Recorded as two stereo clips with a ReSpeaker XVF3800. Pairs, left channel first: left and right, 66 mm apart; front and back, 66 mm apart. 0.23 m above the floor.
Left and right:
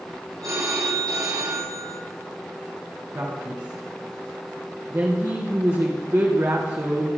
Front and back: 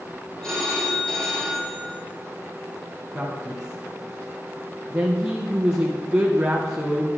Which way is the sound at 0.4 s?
85° right.